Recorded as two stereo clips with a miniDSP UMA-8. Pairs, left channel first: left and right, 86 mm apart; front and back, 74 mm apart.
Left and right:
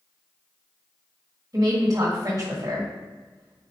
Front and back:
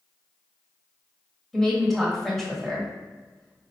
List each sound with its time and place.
1.5 s a woman speaking: 85° right, 1.6 m